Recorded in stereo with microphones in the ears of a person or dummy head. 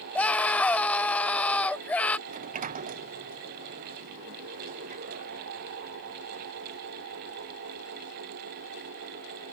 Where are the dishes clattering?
I don't hear dishes clattering.